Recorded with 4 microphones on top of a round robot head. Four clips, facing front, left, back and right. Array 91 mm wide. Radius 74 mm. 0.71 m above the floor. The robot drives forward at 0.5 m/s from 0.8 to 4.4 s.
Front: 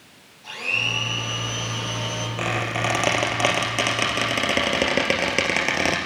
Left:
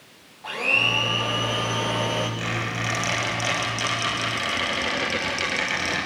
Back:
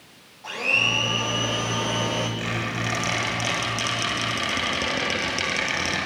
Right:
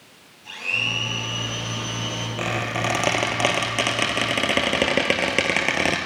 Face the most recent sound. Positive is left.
turn(degrees=-55)